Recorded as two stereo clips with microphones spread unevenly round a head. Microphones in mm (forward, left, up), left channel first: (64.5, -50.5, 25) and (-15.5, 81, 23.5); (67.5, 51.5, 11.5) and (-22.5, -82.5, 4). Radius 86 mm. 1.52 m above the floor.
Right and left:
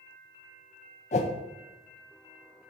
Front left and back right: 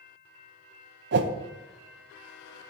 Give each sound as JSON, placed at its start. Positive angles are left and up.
{"t": 1.1, "sound": "a whoosh", "azimuth_deg": -110, "distance_m": 0.7}